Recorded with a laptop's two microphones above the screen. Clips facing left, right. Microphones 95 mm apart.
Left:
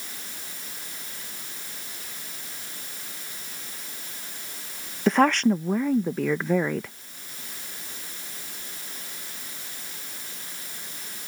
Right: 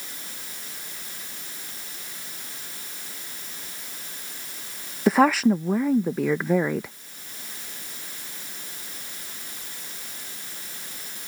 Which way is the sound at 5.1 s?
5° right (ahead or behind).